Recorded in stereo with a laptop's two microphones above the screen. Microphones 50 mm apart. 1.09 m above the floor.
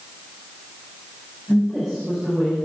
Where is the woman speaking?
5° right (ahead or behind), 4 m.